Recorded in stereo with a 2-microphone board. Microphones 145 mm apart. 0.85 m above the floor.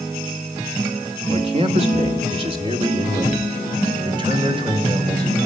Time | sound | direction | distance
1.3 | a man speaking | 45° right (ahead or behind) | 2.0 m